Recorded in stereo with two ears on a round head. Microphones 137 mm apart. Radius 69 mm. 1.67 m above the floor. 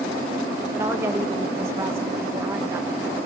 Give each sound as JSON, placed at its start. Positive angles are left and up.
{"t": 0.7, "sound": "a woman speaking", "side_deg": -15, "distance_m": 1.9}